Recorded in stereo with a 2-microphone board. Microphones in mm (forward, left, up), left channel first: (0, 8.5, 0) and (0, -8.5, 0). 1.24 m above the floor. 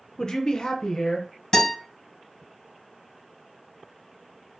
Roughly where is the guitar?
Left.